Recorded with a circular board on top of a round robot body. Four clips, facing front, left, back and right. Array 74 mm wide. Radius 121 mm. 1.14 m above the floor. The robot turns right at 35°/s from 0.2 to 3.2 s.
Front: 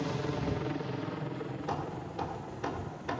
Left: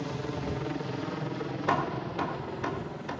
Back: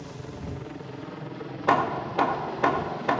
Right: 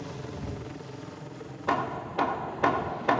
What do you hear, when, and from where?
0.0 s a helicopter: 35° left; by 3.2 s 170° right
1.7 s hammering: straight behind; by 3.2 s 130° right